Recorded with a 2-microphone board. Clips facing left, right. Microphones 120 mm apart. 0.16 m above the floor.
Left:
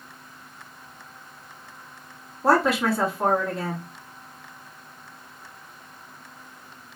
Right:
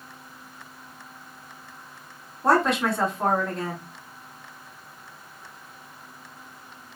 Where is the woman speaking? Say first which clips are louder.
Left 1 dB; 5° left (ahead or behind), 1.1 m.